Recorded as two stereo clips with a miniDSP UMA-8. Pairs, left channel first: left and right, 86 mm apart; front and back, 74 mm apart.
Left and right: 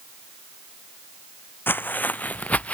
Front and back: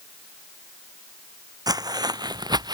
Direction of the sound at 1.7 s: 155° left.